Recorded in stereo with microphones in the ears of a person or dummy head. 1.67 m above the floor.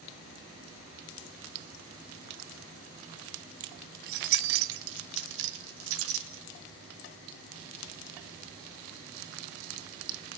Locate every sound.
3.6 s keys jangling: 20° right (ahead or behind), 0.5 m; by 6.4 s 80° right, 3 m